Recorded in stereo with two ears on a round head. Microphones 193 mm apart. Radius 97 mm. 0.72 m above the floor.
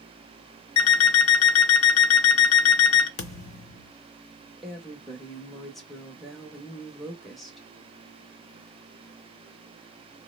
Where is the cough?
I don't hear a cough.